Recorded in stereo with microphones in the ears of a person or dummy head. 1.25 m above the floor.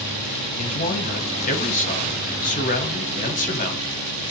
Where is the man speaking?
35° left (ahead or behind), 0.7 m.